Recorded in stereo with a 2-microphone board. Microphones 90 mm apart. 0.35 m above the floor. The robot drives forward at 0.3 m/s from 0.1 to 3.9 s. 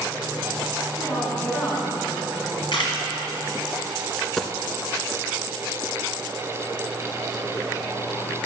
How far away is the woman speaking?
About 2.5 m.